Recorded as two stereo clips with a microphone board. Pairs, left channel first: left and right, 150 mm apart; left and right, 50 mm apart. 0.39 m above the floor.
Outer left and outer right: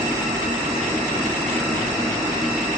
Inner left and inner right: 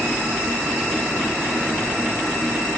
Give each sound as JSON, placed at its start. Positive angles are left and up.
{"t": 0.0, "sound": "a helicopter", "side_deg": 5}